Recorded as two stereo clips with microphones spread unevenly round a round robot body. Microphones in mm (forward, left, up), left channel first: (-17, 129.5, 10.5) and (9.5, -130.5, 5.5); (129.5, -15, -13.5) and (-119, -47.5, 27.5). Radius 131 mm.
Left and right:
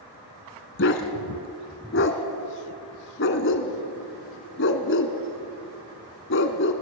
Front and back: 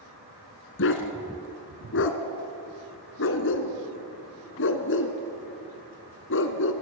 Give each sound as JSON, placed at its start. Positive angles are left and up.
{"t": 0.8, "sound": "a dog barking", "azimuth_deg": 50, "distance_m": 1.6}